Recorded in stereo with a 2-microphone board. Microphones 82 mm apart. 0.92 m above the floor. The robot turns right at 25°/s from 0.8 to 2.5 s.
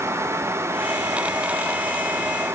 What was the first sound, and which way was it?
Only background noise.